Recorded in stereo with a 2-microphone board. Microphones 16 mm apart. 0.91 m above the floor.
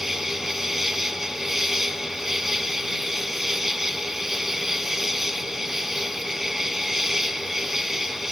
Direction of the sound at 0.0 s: 20° right (ahead or behind).